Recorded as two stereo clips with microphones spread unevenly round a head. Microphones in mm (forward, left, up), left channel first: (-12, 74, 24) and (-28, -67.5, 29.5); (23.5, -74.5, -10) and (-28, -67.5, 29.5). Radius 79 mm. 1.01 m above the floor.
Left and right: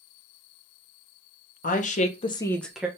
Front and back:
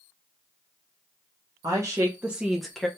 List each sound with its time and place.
1.6 s a woman speaking: 95° left, 1.0 m; by 2.9 s 15° right, 0.8 m